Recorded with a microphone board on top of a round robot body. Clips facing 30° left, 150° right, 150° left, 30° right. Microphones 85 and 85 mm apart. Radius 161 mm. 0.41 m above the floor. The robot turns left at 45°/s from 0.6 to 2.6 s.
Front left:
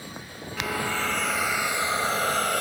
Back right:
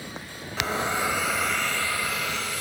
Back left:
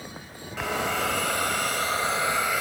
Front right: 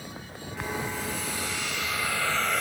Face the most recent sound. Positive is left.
turn(degrees=65)